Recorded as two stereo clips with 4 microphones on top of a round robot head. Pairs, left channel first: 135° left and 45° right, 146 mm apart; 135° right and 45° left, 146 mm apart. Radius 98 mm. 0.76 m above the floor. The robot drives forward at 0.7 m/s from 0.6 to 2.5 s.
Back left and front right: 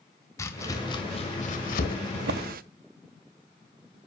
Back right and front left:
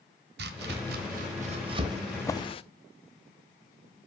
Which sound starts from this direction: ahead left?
Chopping, at 0.4 s.